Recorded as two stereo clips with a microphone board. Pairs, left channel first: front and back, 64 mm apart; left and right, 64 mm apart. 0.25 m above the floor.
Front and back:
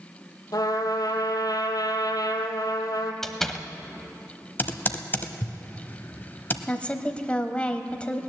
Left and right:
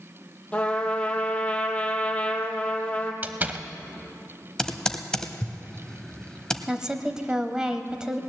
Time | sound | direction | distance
0.5 | a trumpet | 20° left | 1.6 m
3.2 | a door slam | 75° right | 0.8 m
4.6 | typing on a keyboard | 20° left | 0.9 m
6.7 | a woman speaking | 30° right | 0.9 m